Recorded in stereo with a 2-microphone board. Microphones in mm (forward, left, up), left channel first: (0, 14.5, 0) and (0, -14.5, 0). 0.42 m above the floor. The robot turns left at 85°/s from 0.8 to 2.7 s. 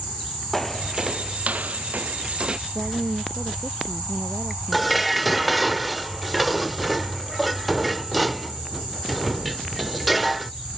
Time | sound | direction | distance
0.5 | footsteps | 10° left (ahead or behind) | ?
2.7 | a woman speaking | 75° right (ahead or behind) | ?
4.7 | dishes clattering | centre (ahead or behind) | ?